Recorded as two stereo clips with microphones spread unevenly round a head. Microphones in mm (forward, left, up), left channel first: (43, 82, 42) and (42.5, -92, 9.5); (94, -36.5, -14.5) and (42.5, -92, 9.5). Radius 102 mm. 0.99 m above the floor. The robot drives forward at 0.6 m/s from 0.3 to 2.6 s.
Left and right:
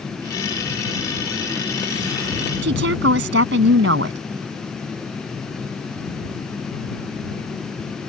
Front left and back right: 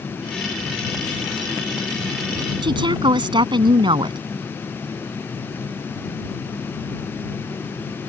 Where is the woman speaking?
125° right.